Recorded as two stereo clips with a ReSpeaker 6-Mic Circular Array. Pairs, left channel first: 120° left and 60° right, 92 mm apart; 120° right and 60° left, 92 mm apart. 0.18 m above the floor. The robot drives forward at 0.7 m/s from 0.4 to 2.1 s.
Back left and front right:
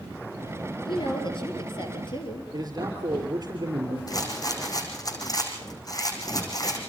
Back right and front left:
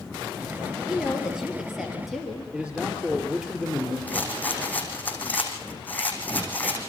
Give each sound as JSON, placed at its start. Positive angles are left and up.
{"t": 0.9, "sound": "a woman speaking", "azimuth_deg": 140, "distance_m": 4.5}
{"t": 2.5, "sound": "a man speaking", "azimuth_deg": -20, "distance_m": 4.0}
{"t": 4.1, "sound": "a rattle", "azimuth_deg": 170, "distance_m": 4.5}